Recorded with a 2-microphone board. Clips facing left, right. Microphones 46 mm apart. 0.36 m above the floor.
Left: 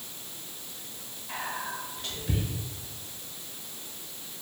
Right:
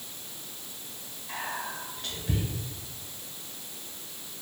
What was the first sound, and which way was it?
Whispering, 5° right (ahead or behind).